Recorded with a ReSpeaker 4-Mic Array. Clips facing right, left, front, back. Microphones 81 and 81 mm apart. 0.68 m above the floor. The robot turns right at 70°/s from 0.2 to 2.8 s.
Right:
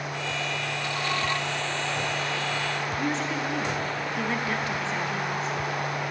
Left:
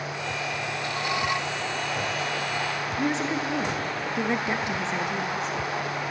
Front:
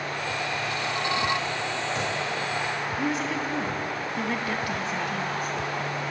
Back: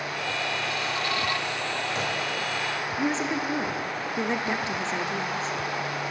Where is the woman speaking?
140° left, 0.5 m.